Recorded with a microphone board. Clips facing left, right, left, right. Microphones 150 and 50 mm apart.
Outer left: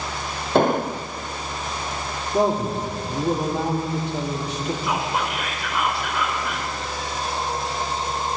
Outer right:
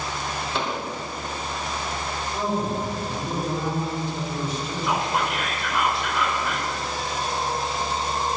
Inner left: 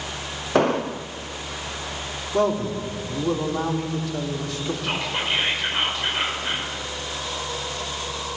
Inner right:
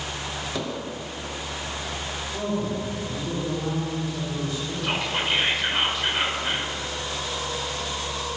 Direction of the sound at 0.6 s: 50° left (ahead or behind).